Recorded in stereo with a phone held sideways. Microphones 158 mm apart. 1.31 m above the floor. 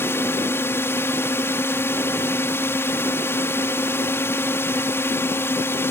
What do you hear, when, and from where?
0.0 s a drone: 15° left (ahead or behind)